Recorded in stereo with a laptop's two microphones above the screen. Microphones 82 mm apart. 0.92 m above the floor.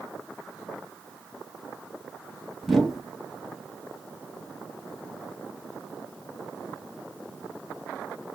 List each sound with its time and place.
2.6 s a whoosh: 5° left (ahead or behind), 1.4 m